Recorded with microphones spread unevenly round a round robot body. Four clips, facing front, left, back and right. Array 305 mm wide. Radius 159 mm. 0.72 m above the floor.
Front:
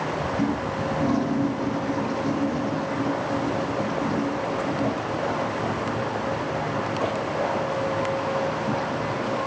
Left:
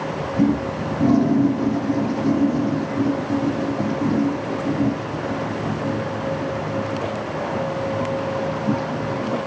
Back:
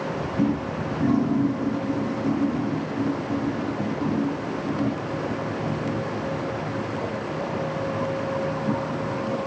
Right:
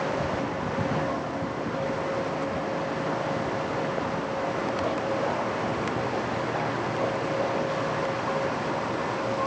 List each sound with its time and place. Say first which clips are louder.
0.4 s a toilet flushing: left 8 dB, back 4 dB; 105° left